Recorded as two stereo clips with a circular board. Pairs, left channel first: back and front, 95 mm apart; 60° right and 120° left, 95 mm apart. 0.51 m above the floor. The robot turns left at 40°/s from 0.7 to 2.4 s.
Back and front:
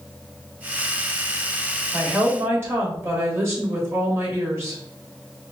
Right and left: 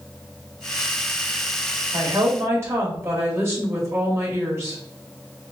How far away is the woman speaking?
About 2 m.